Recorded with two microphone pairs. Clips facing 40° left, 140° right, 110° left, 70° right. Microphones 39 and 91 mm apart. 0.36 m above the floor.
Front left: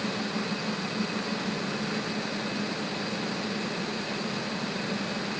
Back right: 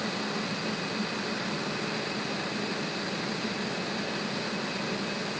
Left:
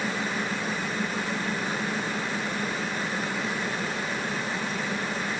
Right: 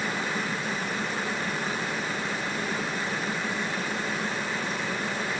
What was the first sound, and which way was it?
Only background noise.